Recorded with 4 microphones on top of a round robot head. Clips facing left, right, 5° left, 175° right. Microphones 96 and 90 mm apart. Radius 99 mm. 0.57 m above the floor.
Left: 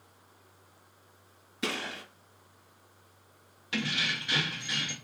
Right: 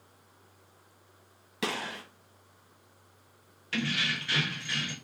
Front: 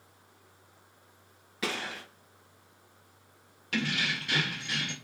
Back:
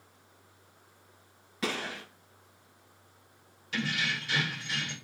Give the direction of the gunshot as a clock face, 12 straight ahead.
3 o'clock.